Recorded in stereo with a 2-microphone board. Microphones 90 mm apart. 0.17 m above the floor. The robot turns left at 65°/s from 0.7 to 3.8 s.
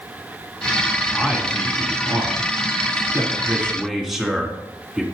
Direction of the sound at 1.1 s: Centre (ahead or behind).